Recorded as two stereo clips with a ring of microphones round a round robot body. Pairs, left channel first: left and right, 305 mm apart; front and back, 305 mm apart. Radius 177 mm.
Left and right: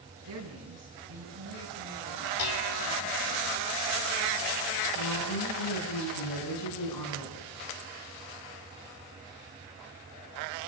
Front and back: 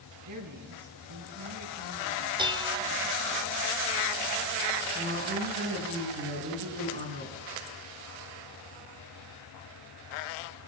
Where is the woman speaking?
125° left, 8.5 m.